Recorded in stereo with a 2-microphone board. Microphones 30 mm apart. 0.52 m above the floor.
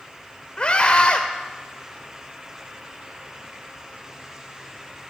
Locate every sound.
0.6 s a scream: 35° left (ahead or behind), 1.7 m